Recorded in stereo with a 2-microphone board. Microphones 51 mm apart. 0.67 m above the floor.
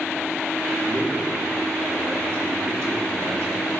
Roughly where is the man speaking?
Right.